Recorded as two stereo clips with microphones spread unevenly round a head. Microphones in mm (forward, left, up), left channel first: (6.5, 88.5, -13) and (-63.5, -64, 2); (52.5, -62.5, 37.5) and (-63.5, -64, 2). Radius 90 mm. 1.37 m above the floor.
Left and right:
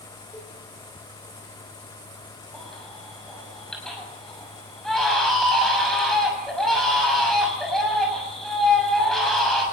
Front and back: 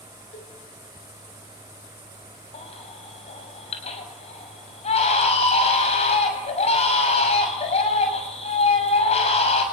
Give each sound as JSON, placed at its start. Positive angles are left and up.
{"t": 0.3, "sound": "a cowbell", "azimuth_deg": -10, "distance_m": 7.5}
{"t": 2.5, "sound": "a baby crying", "azimuth_deg": -25, "distance_m": 6.5}